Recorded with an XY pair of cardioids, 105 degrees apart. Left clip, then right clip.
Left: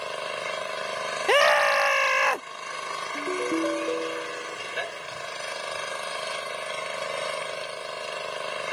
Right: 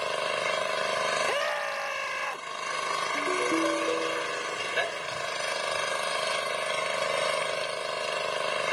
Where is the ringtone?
5° left.